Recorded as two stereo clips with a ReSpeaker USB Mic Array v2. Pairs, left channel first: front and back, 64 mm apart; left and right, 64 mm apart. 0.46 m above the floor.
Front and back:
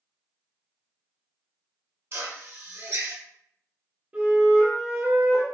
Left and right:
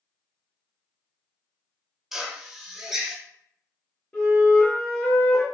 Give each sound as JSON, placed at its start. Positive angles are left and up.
{"t": 2.1, "sound": "a drill", "azimuth_deg": -170, "distance_m": 0.7}
{"t": 4.1, "sound": "a flute", "azimuth_deg": 135, "distance_m": 1.5}